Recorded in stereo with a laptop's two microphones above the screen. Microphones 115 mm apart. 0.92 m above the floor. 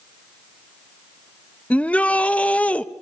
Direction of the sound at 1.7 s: 10° left (ahead or behind).